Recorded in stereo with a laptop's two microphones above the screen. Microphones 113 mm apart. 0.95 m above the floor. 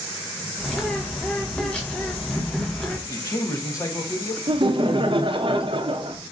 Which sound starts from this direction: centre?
A bird, at 0.6 s.